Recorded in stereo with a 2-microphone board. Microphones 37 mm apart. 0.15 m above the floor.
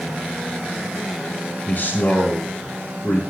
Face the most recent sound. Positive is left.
turn(degrees=55)  # may be behind; listen again after turning